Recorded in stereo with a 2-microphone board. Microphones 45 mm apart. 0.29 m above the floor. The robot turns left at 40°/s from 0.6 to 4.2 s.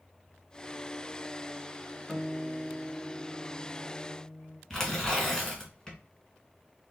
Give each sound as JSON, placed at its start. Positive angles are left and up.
{"t": 2.1, "sound": "a guitar", "azimuth_deg": 165, "distance_m": 0.8}
{"t": 4.7, "sound": "tearing paper", "side_deg": 15, "distance_m": 1.5}